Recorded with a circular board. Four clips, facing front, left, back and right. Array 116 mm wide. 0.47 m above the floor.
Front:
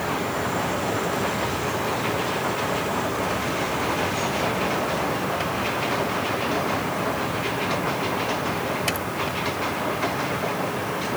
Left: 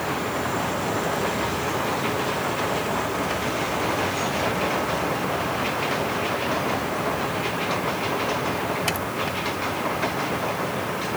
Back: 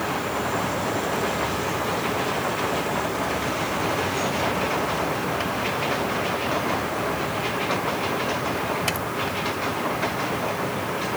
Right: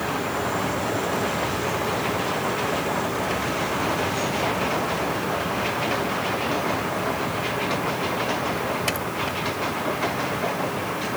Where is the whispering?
I don't hear whispering.